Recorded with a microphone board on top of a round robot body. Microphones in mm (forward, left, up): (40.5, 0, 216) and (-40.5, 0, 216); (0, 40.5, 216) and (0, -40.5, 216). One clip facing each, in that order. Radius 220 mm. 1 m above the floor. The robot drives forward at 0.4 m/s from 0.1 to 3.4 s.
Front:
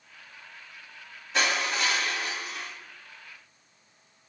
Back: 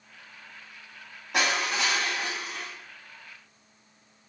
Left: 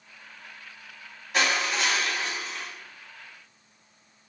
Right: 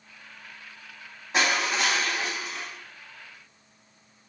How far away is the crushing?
About 1.3 m.